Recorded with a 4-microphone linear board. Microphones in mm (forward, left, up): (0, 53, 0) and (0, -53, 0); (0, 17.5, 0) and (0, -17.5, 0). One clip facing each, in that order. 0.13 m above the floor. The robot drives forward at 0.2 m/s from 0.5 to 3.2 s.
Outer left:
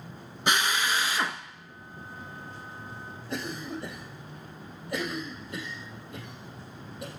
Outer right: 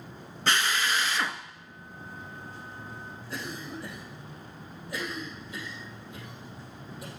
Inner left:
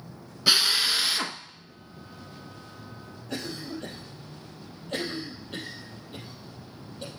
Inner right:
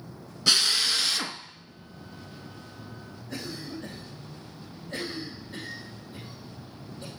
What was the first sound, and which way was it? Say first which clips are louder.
A drill: outer left 1 dB, inner left 1 dB; 15° left (ahead or behind).